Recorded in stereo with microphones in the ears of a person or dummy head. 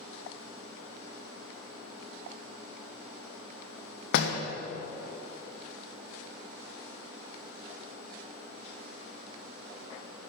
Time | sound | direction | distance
4.1 | a door slam | 65° left (ahead or behind) | 0.9 m